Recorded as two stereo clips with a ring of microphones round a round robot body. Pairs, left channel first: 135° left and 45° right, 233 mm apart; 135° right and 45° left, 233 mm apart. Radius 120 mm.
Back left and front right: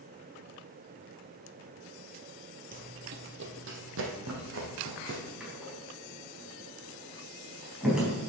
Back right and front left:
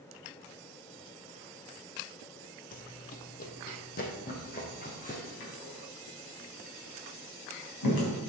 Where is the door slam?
130° right, 4 m.